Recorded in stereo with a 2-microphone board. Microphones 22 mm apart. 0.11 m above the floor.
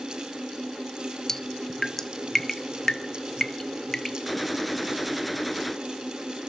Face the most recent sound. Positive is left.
turn(degrees=0)  # may be behind; listen again after turning